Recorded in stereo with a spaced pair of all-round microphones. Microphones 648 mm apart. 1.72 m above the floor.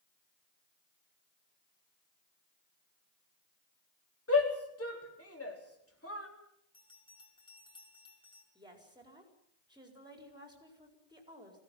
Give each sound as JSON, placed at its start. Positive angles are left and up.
{"t": 4.3, "sound": "a shout", "side_deg": 20, "distance_m": 4.0}
{"t": 6.7, "sound": "a bell", "side_deg": 10, "distance_m": 4.0}
{"t": 8.6, "sound": "a woman speaking", "side_deg": -5, "distance_m": 5.0}